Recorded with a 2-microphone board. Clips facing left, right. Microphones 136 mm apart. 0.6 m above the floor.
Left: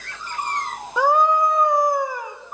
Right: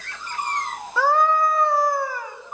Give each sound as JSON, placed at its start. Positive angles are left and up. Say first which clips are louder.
{"t": 1.0, "sound": "a scream", "louder": "left 2 dB", "side_deg": 20, "distance_m": 0.8}